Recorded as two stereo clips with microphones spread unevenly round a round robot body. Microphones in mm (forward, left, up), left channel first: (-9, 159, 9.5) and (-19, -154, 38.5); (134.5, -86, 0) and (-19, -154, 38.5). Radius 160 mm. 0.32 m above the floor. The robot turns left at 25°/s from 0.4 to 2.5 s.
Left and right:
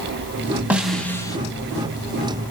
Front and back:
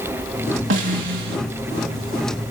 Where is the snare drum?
Straight behind, 1.0 m; by 1.4 s 165° left, 1.0 m.